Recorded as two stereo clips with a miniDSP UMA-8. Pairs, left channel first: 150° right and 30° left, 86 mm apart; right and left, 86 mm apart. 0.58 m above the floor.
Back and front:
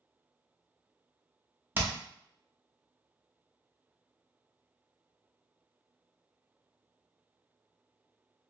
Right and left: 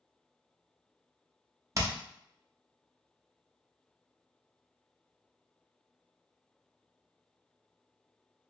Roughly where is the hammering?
Left.